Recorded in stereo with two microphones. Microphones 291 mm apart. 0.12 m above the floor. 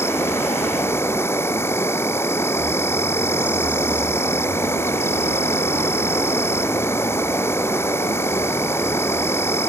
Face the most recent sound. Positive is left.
turn(degrees=10)  # may be behind; listen again after turning